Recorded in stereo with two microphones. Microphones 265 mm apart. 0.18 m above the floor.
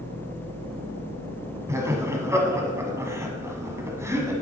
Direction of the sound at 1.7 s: 10° right (ahead or behind).